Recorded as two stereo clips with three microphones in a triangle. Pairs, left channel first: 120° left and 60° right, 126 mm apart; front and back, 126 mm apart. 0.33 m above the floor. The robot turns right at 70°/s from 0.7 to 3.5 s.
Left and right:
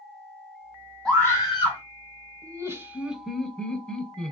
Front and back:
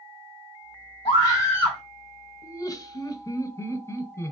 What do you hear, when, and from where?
1.1 s a scream: 35° left, 2.5 m; by 1.8 s 85° left, 2.5 m
2.4 s laughter: 35° right, 0.9 m; by 4.3 s 40° left, 0.9 m